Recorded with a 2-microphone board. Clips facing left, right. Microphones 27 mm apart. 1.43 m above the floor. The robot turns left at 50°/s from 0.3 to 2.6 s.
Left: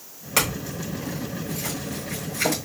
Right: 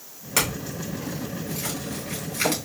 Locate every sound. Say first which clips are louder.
0.4 s a clink: left 1 dB; 20° left (ahead or behind), 3 m; by 2.6 s 80° right, 3 m